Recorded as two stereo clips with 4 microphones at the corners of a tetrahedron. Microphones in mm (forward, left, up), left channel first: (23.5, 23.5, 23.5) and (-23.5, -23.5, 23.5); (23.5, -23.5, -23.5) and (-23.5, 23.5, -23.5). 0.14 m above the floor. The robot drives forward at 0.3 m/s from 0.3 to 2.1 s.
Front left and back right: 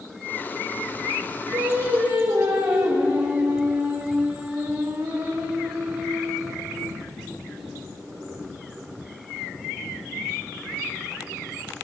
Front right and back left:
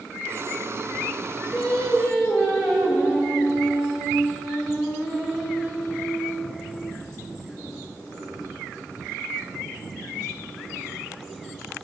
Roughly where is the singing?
Behind right.